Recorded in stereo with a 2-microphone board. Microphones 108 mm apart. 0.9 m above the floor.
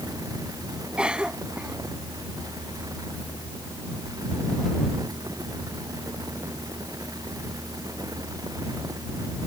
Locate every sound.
1.0 s a cough: 10° right (ahead or behind)